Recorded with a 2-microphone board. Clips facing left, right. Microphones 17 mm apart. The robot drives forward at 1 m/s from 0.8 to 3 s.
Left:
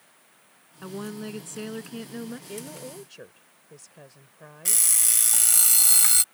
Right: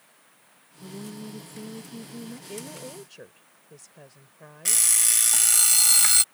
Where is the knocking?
No knocking in this recording.